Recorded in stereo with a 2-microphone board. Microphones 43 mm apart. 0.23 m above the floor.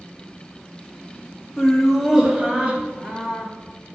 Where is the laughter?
10° left (ahead or behind), 1.1 m; by 3.5 s 40° right (ahead or behind), 1.5 m.